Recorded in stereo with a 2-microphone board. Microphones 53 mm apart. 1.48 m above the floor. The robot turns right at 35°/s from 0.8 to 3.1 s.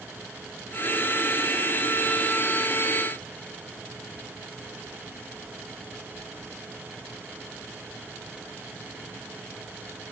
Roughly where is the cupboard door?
I don't hear a cupboard door.